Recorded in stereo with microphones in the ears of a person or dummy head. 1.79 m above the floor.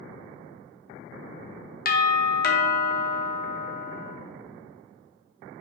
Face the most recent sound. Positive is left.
turn(degrees=40)  # may be behind; listen again after turning